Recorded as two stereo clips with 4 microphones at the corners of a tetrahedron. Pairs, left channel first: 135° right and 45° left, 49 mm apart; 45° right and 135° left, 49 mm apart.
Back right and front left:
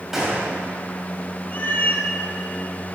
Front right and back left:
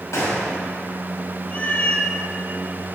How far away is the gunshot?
About 1.8 m.